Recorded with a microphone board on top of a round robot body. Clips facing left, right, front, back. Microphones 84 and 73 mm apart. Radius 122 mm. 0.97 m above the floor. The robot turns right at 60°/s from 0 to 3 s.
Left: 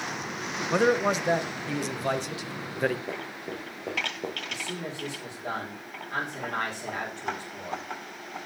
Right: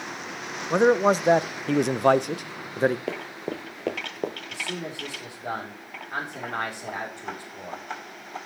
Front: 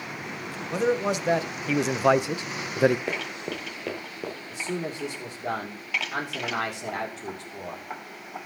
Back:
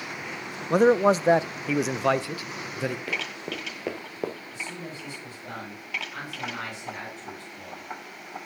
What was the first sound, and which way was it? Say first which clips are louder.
A man speaking: right 4 dB, back 6 dB; 160° right.